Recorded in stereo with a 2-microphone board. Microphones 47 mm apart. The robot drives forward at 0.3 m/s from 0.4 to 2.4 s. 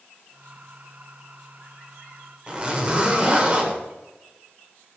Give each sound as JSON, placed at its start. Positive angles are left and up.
{"t": 2.5, "sound": "a zipper", "side_deg": -25, "distance_m": 1.9}